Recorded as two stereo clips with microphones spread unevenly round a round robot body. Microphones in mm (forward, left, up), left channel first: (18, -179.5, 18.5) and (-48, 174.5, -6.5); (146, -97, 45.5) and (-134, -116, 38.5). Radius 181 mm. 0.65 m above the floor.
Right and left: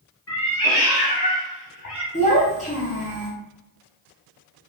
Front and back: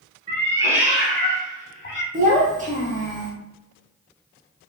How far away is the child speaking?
About 0.6 m.